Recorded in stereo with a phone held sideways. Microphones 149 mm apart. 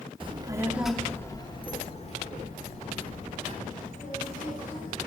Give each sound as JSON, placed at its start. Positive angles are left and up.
{"t": 0.2, "sound": "a child speaking", "side_deg": -35, "distance_m": 0.9}